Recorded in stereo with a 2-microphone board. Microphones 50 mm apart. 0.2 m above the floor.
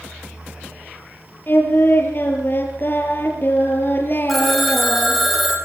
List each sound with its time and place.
1.5 s singing: 45° left (ahead or behind), 6 m
4.3 s a phone ringing: centre (ahead or behind), 5.5 m